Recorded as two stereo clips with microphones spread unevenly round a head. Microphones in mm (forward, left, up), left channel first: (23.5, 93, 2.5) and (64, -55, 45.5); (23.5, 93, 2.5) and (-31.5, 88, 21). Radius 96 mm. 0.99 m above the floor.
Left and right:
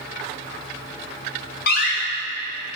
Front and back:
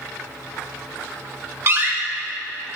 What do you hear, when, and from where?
1.7 s a door slam: 140° left, 3 m